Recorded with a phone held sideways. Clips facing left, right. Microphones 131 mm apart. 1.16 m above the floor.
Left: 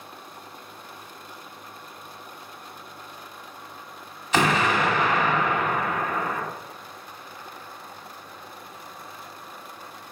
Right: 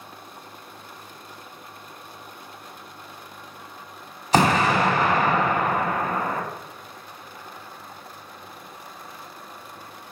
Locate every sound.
4.3 s an explosion: 35° right (ahead or behind), 0.7 m